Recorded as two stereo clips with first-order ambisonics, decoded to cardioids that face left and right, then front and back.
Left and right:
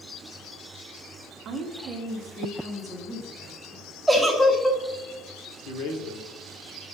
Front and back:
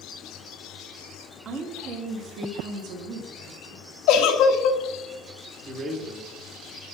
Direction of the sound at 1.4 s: 125° right.